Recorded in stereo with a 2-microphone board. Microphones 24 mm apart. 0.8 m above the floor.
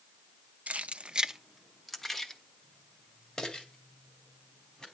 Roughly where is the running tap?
No running tap in this recording.